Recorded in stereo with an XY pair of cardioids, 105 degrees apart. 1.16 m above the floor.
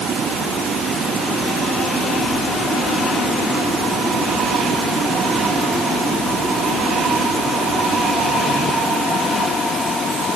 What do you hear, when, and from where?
Only background noise.